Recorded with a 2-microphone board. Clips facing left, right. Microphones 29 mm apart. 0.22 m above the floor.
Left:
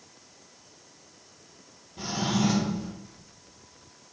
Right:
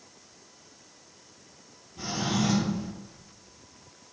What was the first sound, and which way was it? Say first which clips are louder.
A drawer: left 1 dB; 20° left (ahead or behind).